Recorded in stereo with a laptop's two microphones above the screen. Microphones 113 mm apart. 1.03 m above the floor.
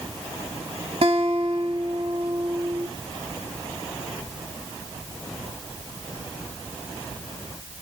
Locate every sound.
1.0 s a guitar: 65° right (ahead or behind), 1.7 m